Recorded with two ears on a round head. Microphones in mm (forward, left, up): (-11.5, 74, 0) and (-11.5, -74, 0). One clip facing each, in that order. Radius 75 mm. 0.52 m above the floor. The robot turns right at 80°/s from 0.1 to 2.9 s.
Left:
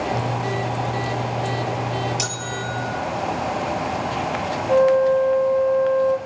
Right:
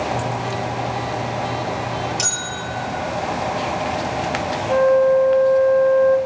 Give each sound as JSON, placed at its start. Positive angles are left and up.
{"t": 2.2, "sound": "a bell", "azimuth_deg": 170, "distance_m": 6.5}
{"t": 4.7, "sound": "a flute", "side_deg": 5, "distance_m": 1.1}